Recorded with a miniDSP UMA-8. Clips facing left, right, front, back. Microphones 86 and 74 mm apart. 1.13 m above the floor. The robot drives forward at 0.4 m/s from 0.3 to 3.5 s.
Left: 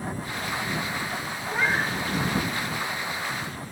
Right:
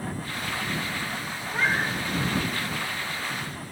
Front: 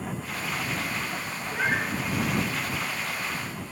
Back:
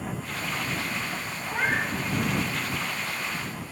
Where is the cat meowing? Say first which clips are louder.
Left 1 dB, even; 175° left, 1.6 m.